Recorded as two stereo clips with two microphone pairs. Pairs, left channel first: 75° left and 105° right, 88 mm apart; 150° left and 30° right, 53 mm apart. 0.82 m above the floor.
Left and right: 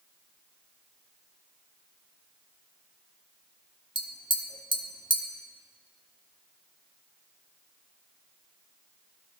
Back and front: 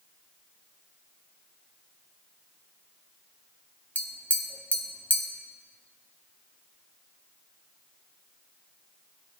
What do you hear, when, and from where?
4.0 s tapping: 95° left, 1.3 m